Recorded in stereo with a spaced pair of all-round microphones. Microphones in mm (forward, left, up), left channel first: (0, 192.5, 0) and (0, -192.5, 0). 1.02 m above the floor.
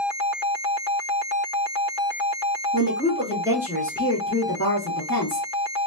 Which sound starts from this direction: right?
A woman speaking, at 2.7 s.